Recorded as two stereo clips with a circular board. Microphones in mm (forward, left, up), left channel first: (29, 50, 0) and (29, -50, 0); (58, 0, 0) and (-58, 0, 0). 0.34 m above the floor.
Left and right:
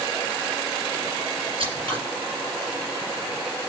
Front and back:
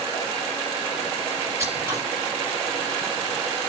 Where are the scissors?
115° right, 3 m.